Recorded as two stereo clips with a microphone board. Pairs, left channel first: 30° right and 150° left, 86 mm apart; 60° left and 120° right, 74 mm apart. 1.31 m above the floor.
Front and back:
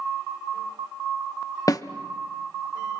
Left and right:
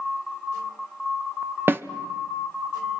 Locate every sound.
1.7 s a snare drum: 65° right, 0.7 m